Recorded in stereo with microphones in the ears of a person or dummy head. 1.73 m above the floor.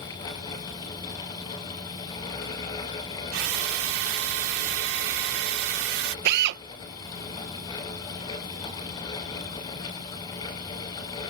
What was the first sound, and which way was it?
A drill, 75° right (ahead or behind).